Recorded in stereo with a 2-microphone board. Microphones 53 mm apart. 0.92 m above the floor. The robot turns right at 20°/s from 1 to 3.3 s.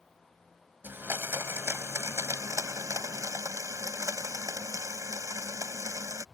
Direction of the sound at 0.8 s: 140° right.